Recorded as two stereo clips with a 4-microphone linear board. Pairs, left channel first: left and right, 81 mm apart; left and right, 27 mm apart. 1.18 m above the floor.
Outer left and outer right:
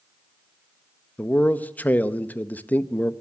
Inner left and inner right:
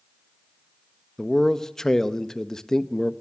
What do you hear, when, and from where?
1.2 s a man speaking: 20° left (ahead or behind), 1.1 m